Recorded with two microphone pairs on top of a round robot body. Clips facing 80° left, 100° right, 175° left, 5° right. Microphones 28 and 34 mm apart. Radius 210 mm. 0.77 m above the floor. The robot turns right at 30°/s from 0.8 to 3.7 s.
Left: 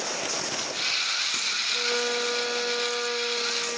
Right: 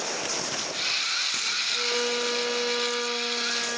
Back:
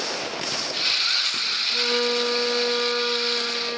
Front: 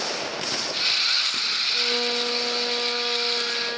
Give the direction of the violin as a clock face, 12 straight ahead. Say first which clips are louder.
Left 1 dB, back 4 dB; 6 o'clock.